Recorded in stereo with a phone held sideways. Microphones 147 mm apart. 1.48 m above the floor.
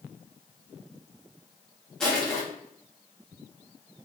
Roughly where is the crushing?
Centre.